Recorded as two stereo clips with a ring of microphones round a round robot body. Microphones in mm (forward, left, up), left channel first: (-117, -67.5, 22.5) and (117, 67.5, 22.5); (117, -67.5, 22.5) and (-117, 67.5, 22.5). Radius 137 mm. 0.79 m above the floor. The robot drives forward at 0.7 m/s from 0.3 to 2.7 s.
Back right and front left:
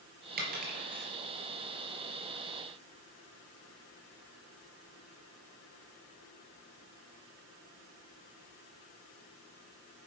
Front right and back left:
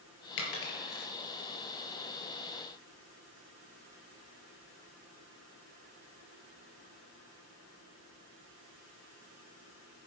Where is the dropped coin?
30° right, 4.5 m.